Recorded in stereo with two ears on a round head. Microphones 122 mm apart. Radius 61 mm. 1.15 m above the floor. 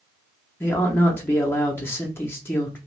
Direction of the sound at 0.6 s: 15° left (ahead or behind).